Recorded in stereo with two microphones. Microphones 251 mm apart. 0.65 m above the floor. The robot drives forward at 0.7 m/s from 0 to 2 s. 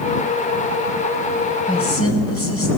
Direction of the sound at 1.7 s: 65° left (ahead or behind).